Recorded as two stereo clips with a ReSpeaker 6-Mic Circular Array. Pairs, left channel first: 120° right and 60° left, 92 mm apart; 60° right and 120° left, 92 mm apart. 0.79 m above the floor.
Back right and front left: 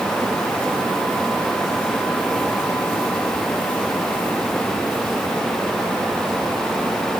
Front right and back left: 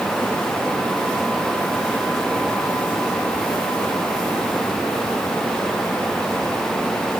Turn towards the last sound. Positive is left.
No sound to turn to.